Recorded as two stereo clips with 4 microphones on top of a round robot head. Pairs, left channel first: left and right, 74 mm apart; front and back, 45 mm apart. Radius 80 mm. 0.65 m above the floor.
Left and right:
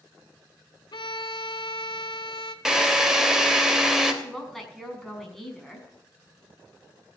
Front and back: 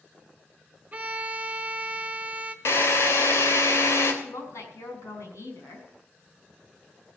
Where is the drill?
10° right, 3 m.